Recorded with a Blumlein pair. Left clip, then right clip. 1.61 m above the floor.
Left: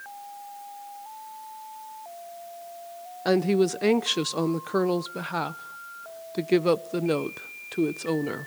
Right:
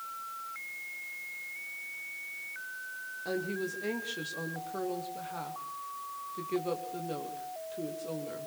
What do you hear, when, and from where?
3.2 s a woman speaking: 35° left, 0.9 m